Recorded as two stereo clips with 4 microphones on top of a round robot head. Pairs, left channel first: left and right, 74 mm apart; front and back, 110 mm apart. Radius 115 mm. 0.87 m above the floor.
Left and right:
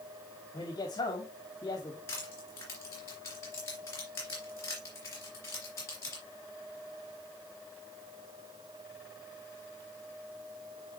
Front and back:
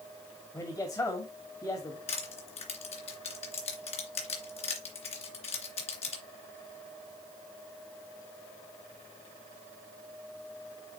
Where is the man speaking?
60° left, 2.0 m.